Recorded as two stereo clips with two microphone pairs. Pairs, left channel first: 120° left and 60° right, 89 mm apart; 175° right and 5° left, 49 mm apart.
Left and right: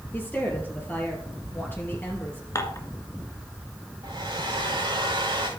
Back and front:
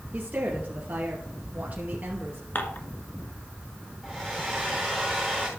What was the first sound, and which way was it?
A woman speaking, 55° left.